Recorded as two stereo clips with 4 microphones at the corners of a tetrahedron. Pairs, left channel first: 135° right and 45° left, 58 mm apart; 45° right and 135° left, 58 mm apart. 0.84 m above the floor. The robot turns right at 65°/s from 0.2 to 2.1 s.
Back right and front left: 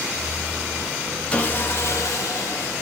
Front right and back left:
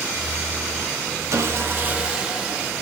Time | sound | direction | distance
1.3 | sawing | 155° left | 0.6 m